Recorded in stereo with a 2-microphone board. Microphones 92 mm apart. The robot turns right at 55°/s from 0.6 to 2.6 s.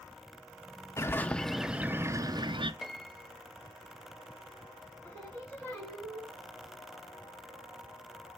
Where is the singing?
20° left (ahead or behind), 3.5 m.